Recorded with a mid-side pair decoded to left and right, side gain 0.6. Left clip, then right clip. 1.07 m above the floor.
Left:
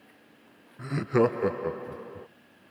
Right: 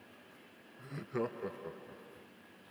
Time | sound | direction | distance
0.8 | laughter | 55° left | ?